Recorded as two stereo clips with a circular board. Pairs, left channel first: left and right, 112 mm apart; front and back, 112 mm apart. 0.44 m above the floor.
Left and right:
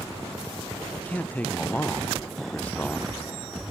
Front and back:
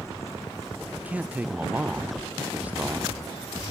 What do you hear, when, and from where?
1.0 s a man speaking: 135° left, 0.7 m